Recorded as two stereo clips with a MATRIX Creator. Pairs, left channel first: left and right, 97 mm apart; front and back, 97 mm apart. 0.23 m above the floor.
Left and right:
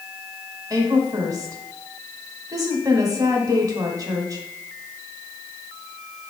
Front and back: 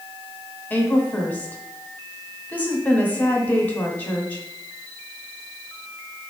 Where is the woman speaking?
65° right, 1.3 m.